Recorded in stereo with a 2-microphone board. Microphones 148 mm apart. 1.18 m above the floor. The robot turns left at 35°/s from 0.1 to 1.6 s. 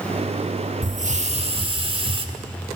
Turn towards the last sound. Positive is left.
turn(degrees=-40)  # may be behind; listen again after turning